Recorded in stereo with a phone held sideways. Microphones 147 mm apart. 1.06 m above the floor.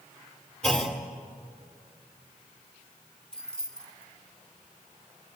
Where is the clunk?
5° left (ahead or behind), 2.5 m.